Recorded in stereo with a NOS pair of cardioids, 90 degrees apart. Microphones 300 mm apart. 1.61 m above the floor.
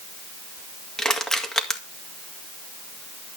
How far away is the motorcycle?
I don't hear a motorcycle.